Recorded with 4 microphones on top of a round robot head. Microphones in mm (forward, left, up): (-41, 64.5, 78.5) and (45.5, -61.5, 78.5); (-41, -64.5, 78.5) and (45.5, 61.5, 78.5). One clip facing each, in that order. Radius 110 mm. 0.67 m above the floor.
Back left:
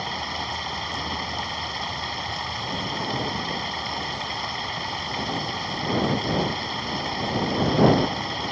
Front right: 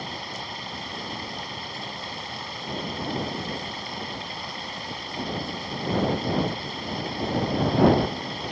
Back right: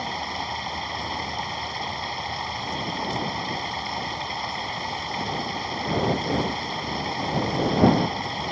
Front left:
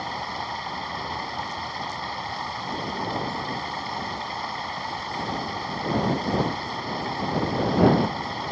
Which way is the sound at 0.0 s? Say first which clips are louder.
Back left 4 dB, back right 1 dB; 165° left.